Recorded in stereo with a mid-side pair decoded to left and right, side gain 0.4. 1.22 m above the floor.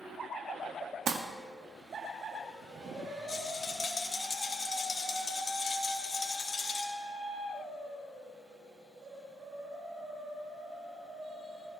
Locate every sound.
1.1 s crumpling: 65° right, 1.4 m
3.3 s a rattle: 45° left, 2.5 m